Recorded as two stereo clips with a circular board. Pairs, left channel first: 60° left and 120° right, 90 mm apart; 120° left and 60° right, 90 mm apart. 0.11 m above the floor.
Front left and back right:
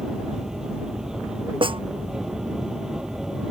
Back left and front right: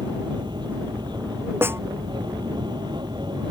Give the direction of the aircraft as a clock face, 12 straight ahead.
1 o'clock.